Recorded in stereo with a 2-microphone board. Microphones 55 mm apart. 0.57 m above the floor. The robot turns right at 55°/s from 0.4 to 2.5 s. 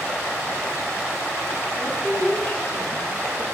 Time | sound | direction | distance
1.8 | a woman speaking | 20° left | 1.0 m